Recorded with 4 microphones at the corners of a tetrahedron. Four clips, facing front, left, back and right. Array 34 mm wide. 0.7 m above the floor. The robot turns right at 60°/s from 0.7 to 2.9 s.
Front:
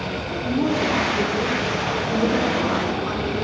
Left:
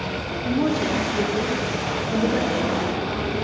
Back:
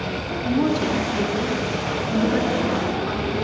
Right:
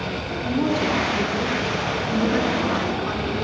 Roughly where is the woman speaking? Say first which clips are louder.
Even, even; behind.